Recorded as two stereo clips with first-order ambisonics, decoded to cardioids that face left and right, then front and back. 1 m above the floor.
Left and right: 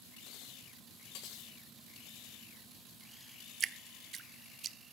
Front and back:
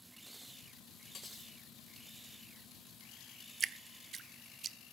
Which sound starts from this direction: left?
Cutlery clinking, at 1.1 s.